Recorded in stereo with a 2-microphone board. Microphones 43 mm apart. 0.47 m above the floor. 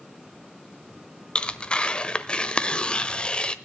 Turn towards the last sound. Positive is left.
turn(degrees=25)  # may be behind; listen again after turning